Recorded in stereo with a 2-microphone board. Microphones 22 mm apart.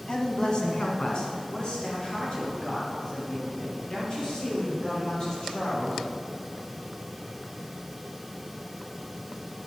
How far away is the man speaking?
About 1.7 m.